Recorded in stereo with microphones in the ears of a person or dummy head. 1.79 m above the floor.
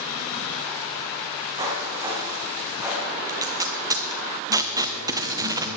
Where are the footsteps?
25° right (ahead or behind), 4 m; by 3.2 s 10° right (ahead or behind), 5 m.